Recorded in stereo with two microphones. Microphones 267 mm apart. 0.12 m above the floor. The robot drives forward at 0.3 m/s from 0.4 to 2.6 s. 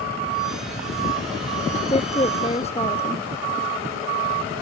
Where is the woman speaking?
25° left (ahead or behind).